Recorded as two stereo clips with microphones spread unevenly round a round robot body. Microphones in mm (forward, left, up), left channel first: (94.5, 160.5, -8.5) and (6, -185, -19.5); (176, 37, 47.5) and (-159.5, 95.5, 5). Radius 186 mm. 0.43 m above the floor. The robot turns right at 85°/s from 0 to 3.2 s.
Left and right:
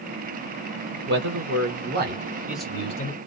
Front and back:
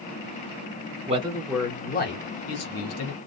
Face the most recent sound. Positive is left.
turn(degrees=35)